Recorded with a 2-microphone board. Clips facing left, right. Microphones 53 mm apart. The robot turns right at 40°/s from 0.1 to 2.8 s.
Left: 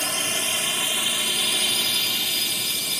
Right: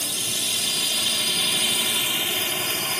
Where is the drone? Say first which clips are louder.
Left 4 dB; 45° left (ahead or behind); by 3.0 s 40° right (ahead or behind).